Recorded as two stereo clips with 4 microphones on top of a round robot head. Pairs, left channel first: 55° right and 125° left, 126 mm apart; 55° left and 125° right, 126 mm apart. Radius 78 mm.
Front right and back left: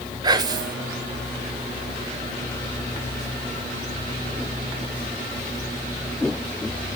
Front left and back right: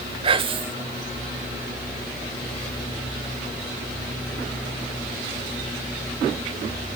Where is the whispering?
175° right, 1.2 m.